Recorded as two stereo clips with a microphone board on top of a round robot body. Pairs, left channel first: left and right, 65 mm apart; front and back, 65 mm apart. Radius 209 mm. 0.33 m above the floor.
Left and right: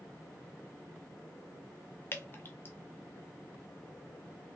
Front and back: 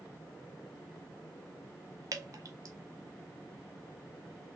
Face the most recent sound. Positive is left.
turn(degrees=145)